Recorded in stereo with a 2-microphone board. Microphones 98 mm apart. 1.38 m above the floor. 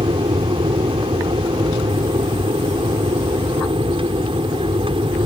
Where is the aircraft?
70° right (ahead or behind).